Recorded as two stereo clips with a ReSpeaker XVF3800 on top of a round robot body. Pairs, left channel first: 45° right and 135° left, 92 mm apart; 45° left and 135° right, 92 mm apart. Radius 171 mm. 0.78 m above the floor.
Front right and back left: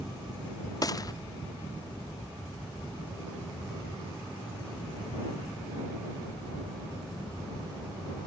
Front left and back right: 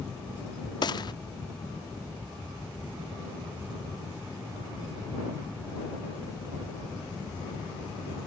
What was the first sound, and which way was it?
A gunshot, 5° left.